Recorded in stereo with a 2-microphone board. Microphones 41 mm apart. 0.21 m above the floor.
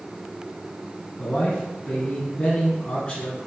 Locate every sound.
1.2 s a man speaking: 20° left (ahead or behind), 1.9 m